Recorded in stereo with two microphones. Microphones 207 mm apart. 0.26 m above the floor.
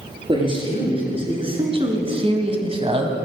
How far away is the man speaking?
About 4 m.